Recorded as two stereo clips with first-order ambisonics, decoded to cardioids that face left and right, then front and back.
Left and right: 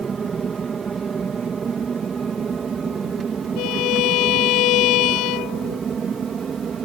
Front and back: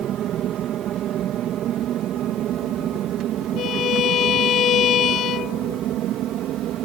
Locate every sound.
0.0 s an aircraft: 155° right
3.6 s a violin: 55° left